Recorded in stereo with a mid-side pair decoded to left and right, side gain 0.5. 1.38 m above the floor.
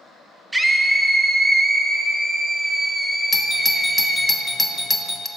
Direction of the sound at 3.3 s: 10° left.